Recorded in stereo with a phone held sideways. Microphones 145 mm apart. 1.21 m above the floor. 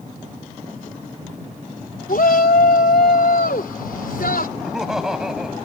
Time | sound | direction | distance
2.1 | a shout | 80° left | ?
4.6 | laughter | 5° right (ahead or behind) | ?